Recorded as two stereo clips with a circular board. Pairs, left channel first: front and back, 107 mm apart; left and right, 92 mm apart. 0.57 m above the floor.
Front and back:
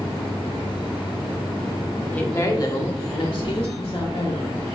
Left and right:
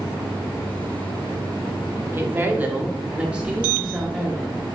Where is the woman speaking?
65° right, 1.1 m; by 4.6 s 5° right, 3.5 m.